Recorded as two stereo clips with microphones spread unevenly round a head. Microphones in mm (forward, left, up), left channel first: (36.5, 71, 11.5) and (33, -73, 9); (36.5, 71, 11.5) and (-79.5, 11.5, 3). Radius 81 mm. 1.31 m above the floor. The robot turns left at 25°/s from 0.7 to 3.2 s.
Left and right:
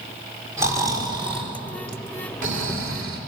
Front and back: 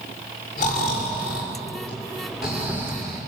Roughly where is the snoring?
Ahead.